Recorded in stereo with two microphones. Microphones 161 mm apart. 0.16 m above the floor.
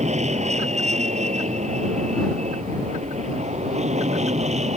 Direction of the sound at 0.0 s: 45° right (ahead or behind).